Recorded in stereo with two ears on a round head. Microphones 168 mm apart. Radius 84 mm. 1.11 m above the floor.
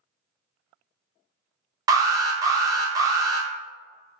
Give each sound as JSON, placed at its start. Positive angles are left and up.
{"t": 1.9, "sound": "an alarm", "side_deg": -20, "distance_m": 0.5}